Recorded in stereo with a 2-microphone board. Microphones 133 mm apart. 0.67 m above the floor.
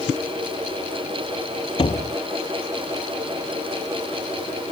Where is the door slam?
45° left (ahead or behind).